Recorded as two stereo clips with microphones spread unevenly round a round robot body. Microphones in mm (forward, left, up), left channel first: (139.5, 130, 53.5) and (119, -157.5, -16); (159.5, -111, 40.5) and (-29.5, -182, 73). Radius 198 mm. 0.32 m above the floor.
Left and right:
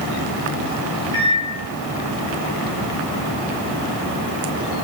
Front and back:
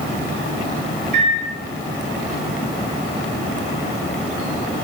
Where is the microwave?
135° right, 2 m.